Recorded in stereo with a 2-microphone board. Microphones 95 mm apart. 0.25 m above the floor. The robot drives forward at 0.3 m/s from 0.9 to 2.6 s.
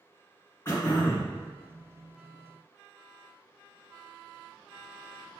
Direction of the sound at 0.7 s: 25° left (ahead or behind).